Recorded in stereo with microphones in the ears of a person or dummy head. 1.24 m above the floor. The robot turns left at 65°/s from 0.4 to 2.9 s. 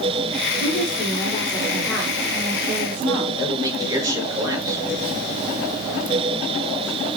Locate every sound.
0.6 s a woman speaking: 90° left, 3 m; by 3.3 s 60° right, 3 m
3.4 s a man speaking: 25° right (ahead or behind), 6 m